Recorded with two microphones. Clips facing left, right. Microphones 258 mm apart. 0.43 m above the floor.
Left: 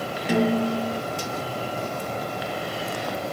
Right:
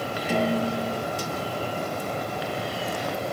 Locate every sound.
0.3 s a snare drum: 85° left, 4 m